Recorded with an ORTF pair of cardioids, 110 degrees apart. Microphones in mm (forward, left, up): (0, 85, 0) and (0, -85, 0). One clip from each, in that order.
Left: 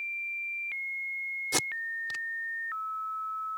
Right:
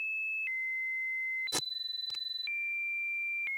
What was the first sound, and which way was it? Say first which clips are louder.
Tape being pulled: left 4 dB; 40° left.